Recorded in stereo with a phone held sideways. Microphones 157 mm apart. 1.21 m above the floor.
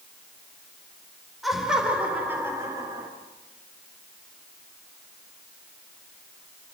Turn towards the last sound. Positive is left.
turn(degrees=-25)  # may be behind; listen again after turning